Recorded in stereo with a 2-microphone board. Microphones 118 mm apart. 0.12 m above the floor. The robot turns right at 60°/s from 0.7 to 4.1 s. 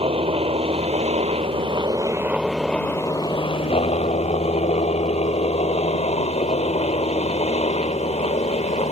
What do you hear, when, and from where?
0.0 s a helicopter: 115° right; by 8.9 s 90° left